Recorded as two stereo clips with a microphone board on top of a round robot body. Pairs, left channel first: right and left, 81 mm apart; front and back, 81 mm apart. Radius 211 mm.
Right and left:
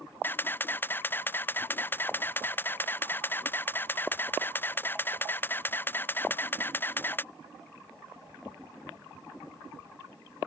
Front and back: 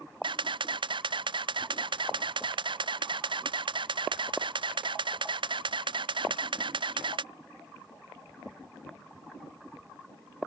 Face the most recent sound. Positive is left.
turn(degrees=-155)